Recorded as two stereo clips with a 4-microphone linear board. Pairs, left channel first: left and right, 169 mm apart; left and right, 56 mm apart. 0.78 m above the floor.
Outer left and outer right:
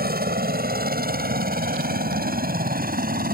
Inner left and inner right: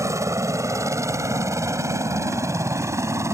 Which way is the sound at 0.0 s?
60° right (ahead or behind).